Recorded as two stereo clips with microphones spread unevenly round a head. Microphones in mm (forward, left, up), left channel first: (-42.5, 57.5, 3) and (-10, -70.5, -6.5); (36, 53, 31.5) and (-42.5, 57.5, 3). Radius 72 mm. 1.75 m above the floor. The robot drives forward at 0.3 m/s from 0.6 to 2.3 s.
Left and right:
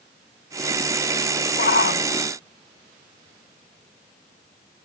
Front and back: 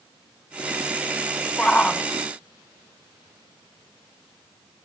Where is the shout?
70° left; by 2.1 s 75° left.